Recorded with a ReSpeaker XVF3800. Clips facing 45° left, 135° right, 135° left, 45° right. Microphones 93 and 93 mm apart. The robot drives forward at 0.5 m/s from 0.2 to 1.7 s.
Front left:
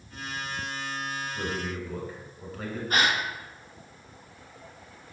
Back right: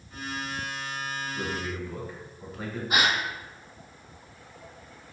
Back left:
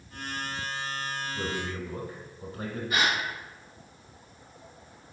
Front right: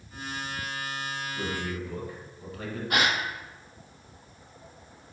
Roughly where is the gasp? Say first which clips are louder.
Even, front right 2 dB; ahead right.